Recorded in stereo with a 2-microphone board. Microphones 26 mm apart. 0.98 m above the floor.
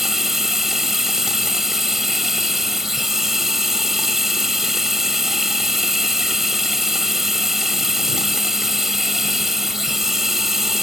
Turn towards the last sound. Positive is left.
turn(degrees=-15)  # may be behind; listen again after turning